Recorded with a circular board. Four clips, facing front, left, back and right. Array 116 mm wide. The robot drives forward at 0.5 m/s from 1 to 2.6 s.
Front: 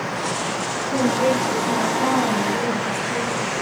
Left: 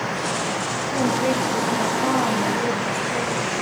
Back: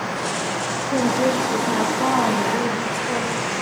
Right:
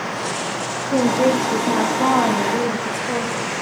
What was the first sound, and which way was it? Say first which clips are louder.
A woman speaking: right 5 dB, even; 110° right.